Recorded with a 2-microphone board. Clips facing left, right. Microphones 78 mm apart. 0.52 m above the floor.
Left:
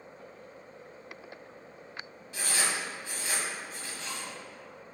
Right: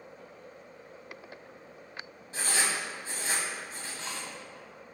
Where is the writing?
35° right (ahead or behind), 1.5 m.